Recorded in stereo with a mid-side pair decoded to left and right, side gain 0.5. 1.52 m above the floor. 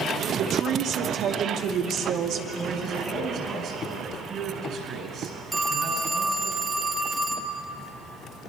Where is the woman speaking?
65° right, 2.5 m.